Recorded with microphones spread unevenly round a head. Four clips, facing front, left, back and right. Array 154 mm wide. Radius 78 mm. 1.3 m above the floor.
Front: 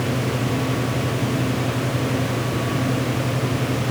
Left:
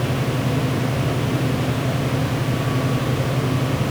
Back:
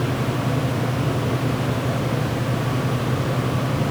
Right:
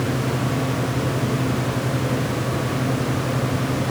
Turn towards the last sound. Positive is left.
No sound to turn to.